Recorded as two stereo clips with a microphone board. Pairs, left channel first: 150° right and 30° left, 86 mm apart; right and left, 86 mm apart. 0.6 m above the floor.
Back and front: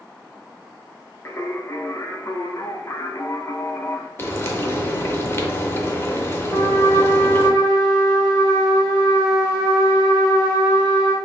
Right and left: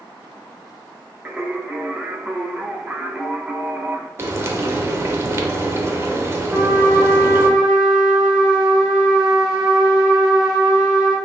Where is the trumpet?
170° left, 1.5 m.